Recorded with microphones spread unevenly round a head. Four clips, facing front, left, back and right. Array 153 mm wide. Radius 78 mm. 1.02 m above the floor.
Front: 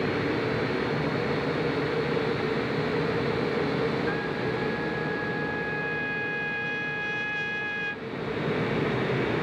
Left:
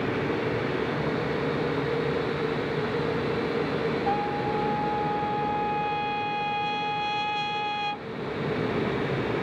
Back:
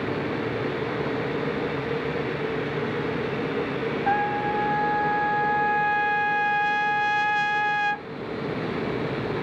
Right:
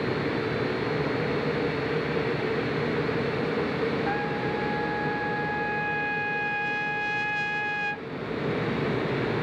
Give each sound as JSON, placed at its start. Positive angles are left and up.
{"t": 4.1, "sound": "a trumpet", "azimuth_deg": 165}